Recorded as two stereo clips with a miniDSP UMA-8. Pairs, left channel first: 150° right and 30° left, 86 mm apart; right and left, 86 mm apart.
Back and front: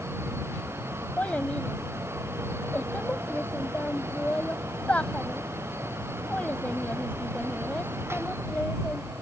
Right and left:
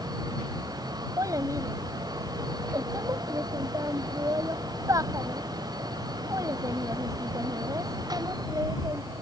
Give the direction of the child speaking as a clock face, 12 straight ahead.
7 o'clock.